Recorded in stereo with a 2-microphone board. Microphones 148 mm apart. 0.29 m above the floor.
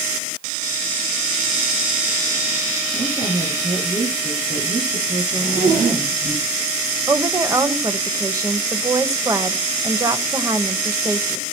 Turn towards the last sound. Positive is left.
turn(degrees=-20)  # may be behind; listen again after turning